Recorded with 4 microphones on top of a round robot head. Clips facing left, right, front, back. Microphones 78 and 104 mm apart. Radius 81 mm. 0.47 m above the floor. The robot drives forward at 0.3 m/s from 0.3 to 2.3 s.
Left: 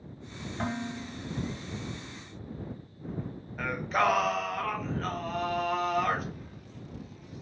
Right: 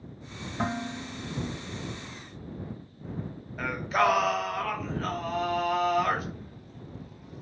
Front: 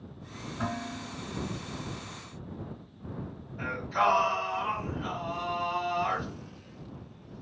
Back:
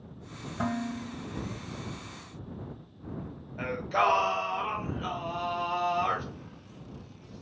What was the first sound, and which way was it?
Dishes clattering, 165° right.